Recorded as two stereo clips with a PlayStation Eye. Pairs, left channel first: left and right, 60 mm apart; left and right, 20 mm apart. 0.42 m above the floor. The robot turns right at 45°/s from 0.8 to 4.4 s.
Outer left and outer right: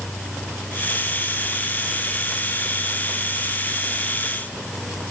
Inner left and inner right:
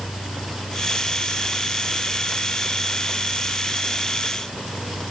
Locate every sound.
Only background noise.